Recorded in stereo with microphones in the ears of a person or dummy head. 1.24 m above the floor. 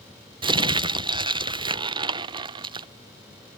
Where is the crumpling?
25° right (ahead or behind).